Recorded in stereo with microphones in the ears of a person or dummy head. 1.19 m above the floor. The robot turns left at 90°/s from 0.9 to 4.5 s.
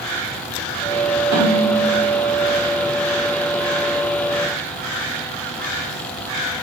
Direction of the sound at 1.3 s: 85° right.